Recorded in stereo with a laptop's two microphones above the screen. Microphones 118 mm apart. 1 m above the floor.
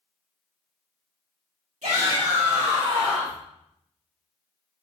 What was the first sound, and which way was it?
A shout, 70° right (ahead or behind).